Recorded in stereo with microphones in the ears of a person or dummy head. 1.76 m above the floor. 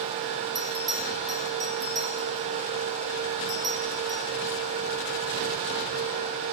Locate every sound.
0.6 s a bell: centre (ahead or behind), 3.5 m